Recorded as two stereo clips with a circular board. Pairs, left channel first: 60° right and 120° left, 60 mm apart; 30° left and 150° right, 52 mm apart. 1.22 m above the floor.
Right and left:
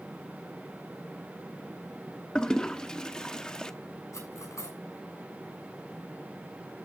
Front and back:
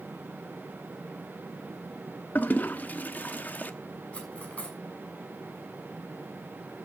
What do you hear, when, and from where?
2.4 s a toilet flushing: 10° left, 0.8 m
4.1 s cutlery clinking: 35° right, 6 m